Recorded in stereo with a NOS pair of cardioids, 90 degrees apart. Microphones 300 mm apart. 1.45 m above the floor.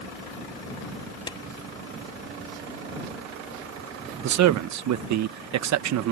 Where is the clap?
15° left.